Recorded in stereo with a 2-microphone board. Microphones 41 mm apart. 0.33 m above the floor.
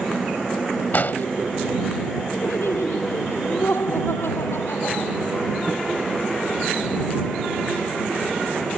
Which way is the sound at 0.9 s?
50° left (ahead or behind).